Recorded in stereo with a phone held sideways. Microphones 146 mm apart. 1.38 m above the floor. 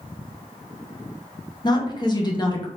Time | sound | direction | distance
1.6 | a woman speaking | 30° left (ahead or behind) | 0.9 m